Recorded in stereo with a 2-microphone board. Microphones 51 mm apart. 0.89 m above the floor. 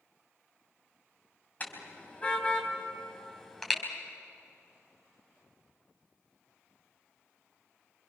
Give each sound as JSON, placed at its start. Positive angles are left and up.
{"t": 1.6, "sound": "a car horn", "side_deg": 35, "distance_m": 3.5}